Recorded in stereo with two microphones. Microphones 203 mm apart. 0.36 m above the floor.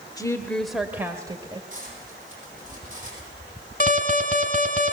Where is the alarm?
45° left (ahead or behind), 2.0 m.